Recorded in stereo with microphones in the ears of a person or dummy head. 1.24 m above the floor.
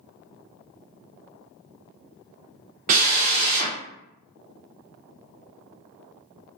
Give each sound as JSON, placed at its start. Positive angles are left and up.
{"t": 2.9, "sound": "a drill", "side_deg": -45, "distance_m": 0.6}